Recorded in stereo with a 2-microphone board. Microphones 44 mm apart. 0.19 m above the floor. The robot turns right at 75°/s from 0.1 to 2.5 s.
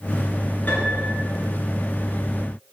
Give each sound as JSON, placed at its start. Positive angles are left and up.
{"t": 0.7, "sound": "a piano", "azimuth_deg": 55, "distance_m": 2.0}